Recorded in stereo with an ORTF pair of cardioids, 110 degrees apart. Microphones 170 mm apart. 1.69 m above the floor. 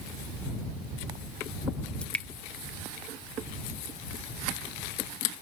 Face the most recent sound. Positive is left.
turn(degrees=5)